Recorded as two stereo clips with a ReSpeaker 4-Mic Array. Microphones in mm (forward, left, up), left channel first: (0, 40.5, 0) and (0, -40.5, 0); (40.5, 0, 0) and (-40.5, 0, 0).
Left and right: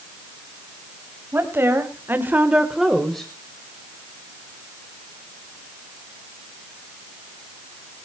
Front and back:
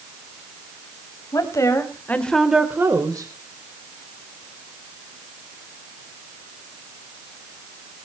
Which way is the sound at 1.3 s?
35° right.